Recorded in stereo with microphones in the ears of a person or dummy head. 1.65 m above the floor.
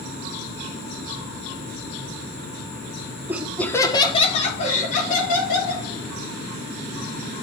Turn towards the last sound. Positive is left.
turn(degrees=50)  # may be behind; listen again after turning